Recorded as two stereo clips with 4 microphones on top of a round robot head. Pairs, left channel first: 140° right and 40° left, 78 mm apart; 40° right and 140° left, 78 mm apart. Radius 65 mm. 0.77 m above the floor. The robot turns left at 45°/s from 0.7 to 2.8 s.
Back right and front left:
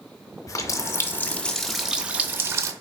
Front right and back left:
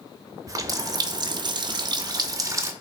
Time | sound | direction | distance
0.5 | a running tap | straight behind | 0.5 m